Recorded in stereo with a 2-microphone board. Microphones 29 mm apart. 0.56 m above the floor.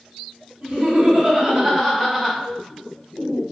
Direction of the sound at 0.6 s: 45° right (ahead or behind).